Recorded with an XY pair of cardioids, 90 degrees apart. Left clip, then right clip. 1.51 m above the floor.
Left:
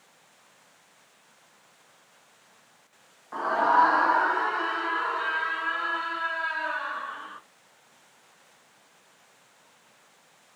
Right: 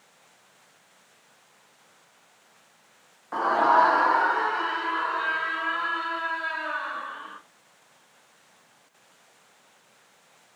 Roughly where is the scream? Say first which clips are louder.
Right 2 dB; ahead right.